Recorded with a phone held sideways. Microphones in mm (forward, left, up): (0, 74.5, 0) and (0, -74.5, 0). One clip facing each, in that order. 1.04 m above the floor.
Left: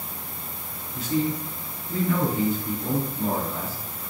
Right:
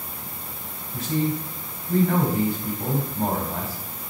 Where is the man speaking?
60° right (ahead or behind), 4.5 m.